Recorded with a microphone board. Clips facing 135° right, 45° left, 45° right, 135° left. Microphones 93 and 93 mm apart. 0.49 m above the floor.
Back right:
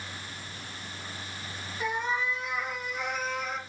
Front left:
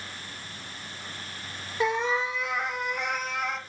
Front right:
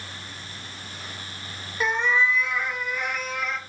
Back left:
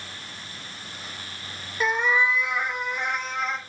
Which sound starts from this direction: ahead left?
A cat meowing, at 1.8 s.